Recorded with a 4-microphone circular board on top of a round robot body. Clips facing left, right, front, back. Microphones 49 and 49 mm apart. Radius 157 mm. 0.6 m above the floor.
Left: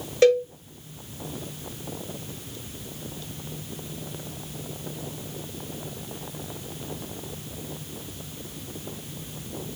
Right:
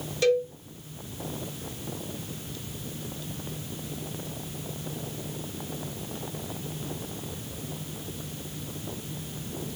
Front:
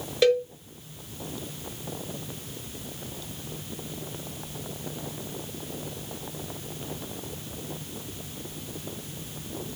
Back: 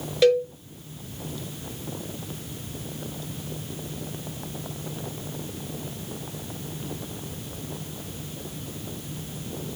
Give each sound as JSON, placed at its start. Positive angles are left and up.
{"t": 0.2, "sound": "a cowbell", "azimuth_deg": 85, "distance_m": 1.4}